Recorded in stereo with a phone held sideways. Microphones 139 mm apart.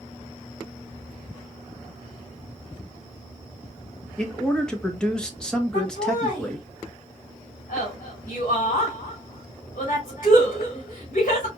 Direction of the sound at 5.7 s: 75° left (ahead or behind).